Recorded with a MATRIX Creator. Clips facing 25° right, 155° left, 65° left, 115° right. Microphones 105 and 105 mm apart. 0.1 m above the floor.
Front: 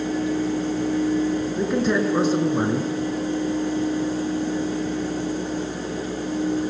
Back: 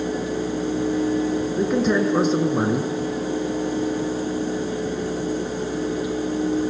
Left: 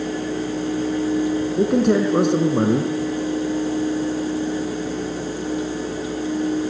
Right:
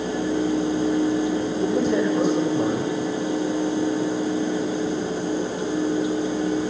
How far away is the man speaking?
About 5 m.